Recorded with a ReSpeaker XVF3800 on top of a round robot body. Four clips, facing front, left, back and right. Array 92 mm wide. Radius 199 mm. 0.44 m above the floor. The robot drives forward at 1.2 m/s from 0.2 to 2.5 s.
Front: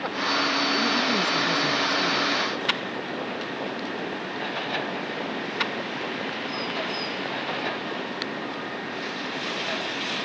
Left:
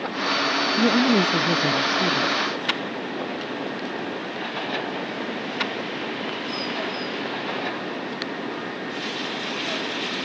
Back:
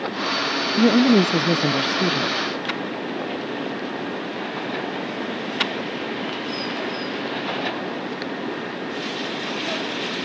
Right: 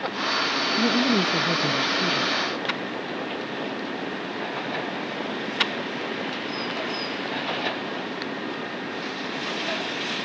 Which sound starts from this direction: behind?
A woman speaking, at 0.8 s.